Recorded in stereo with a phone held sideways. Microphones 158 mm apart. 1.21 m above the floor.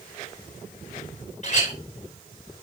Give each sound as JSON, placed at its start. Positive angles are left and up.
{"t": 1.4, "sound": "a clink", "side_deg": 50, "distance_m": 3.0}